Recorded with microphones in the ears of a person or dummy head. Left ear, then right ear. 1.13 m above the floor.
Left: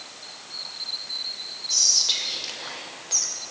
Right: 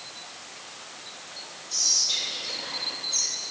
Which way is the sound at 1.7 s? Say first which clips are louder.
Left 3 dB; 45° left (ahead or behind).